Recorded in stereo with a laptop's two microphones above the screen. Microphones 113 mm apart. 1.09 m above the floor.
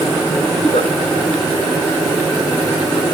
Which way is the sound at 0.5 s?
75° left (ahead or behind).